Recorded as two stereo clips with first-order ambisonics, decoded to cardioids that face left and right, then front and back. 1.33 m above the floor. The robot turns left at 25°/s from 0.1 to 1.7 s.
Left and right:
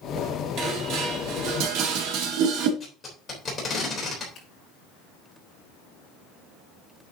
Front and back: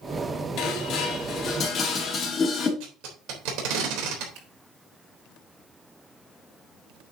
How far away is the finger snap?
About 5.5 m.